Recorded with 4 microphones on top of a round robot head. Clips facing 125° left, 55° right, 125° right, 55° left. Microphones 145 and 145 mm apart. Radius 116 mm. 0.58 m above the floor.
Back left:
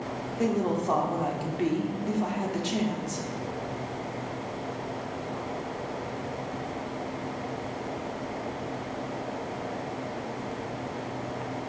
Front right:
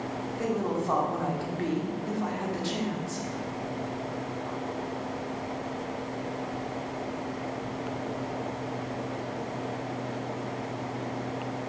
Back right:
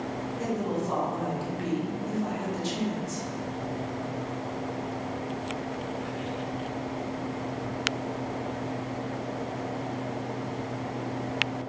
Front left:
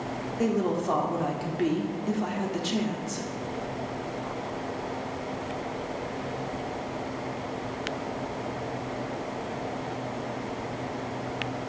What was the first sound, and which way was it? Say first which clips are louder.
A woman speaking: back left 3 dB, front left 5 dB; 60° left.